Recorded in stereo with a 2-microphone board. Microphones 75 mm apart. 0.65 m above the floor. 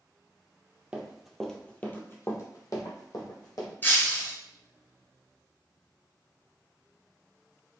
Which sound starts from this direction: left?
Breaking glass, at 3.8 s.